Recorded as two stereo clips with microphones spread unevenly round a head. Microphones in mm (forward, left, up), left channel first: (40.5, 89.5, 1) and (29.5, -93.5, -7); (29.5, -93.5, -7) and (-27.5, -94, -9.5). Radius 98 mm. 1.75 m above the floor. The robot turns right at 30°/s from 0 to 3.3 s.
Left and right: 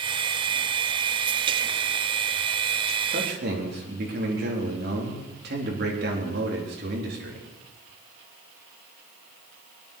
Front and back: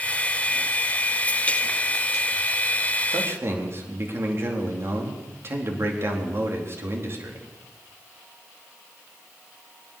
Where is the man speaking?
145° right, 3.5 m; by 7.5 s 135° right, 3.5 m.